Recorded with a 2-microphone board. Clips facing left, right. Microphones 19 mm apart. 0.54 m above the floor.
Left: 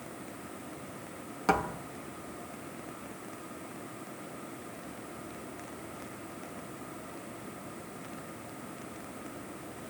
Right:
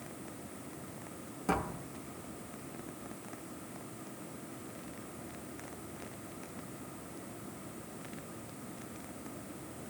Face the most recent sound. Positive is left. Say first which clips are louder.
# left 5 dB
turn(degrees=45)  # may be behind; listen again after turning